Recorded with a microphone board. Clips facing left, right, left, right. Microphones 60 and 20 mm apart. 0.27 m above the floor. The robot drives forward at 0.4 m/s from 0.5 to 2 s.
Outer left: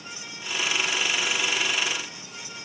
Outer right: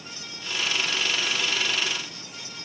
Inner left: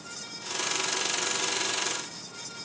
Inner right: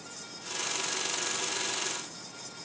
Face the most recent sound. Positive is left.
No sound to turn to.